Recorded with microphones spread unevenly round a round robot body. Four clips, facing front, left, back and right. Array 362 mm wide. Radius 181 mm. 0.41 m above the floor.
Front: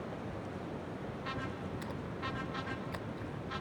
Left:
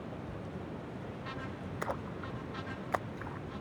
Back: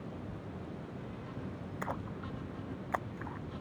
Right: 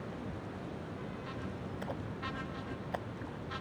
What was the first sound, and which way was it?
A splash, 120° left.